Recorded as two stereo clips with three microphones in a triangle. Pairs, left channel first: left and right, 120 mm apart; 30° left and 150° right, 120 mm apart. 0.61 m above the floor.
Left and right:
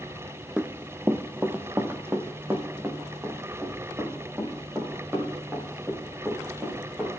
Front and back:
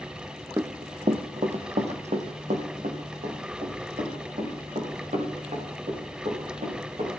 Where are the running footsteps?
160° right, 0.6 m.